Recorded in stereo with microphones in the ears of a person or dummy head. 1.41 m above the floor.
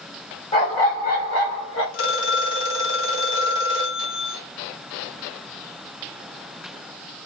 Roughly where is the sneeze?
No sneeze in this recording.